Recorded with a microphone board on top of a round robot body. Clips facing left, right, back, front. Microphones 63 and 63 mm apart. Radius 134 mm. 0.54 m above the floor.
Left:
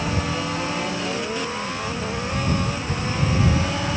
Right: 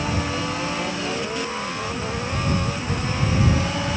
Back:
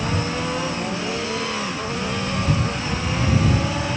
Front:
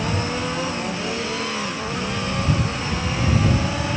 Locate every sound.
Only background noise.